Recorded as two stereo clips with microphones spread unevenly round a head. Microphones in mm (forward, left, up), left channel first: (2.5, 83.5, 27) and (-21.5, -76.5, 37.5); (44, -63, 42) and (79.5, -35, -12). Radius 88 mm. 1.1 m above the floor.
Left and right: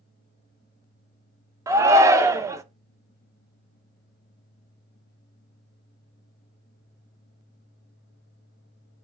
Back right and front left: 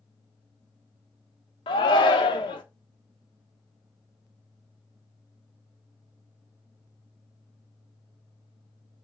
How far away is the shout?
About 1.2 m.